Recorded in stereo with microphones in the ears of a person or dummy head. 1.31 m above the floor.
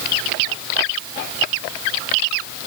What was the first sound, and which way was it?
Only background noise.